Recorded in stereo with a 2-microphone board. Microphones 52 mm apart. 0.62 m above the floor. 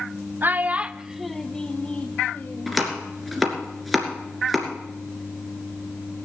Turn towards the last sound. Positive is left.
turn(degrees=0)  # may be behind; listen again after turning